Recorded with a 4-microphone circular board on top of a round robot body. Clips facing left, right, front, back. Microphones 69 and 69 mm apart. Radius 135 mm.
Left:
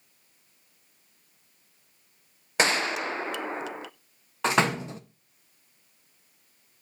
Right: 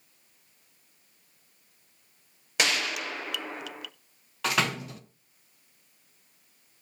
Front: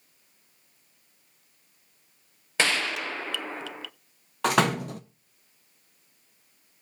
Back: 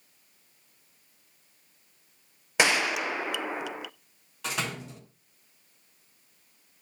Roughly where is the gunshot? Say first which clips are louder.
Left 4 dB, back 2 dB; behind left.